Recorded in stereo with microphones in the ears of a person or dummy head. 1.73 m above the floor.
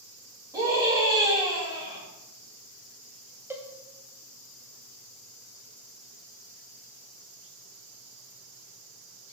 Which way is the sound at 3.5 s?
15° right (ahead or behind).